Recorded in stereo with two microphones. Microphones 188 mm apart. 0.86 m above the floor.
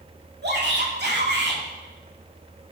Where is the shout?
65° right (ahead or behind), 2.5 m.